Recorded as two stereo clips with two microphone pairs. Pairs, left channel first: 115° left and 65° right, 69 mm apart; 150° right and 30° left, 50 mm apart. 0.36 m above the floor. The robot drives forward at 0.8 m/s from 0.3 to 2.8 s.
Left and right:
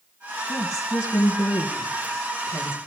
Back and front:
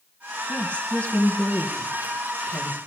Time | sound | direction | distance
0.5 | a woman speaking | 150° left | 3 m